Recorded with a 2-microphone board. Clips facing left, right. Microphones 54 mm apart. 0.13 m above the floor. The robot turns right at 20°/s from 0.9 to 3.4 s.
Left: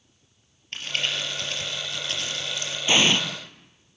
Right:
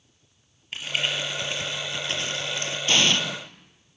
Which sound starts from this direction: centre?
An explosion, at 2.9 s.